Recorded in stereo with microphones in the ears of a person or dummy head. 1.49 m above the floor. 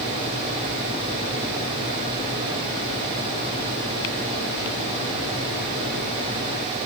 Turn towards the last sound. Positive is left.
No sound to turn to.